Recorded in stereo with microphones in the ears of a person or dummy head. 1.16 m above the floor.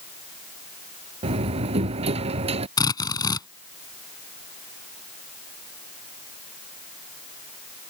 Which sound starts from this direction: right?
A door slam, at 1.2 s.